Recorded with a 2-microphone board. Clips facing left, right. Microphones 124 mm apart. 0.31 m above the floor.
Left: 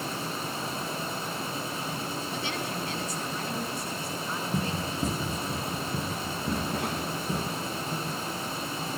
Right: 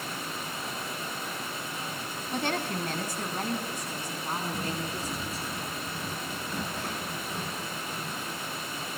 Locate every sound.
2.3 s a woman speaking: 55° right (ahead or behind), 2.5 m; by 5.5 s 35° right (ahead or behind), 4.5 m
4.5 s running footsteps: 85° left, 5.5 m